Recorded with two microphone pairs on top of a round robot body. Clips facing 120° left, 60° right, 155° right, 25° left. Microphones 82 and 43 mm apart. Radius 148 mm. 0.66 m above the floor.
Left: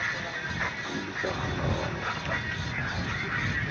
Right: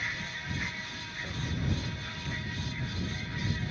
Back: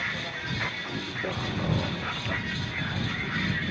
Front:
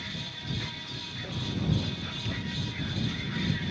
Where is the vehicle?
160° left; by 3.7 s 145° left.